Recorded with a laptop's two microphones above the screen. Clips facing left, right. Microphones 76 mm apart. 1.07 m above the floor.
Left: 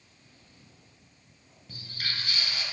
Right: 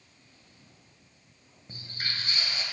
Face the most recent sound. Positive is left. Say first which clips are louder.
# even
turn(degrees=-30)  # may be behind; listen again after turning